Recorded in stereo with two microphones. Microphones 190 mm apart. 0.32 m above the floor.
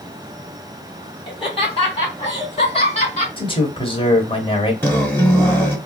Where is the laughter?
25° left (ahead or behind), 1.6 m; by 3.3 s 35° left (ahead or behind), 2.5 m.